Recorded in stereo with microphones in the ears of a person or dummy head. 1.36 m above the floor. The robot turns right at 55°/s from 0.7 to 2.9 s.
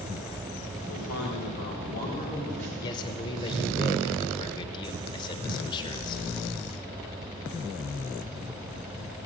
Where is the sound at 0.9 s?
75° left, 4 m; by 2.7 s 175° left, 4 m.